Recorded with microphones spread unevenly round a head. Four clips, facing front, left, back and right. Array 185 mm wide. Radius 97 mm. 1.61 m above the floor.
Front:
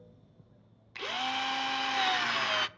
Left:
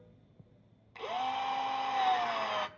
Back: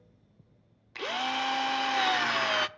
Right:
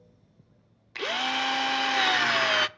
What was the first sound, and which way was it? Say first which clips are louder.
A drill: right 4 dB, back 3 dB; 90° right.